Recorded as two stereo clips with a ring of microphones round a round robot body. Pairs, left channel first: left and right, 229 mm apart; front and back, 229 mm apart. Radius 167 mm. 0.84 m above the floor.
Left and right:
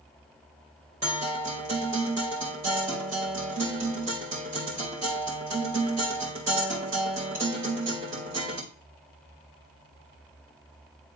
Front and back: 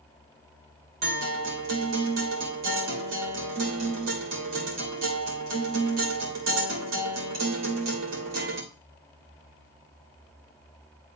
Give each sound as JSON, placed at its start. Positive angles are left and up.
{"t": 1.0, "sound": "a guitar", "azimuth_deg": -170, "distance_m": 2.0}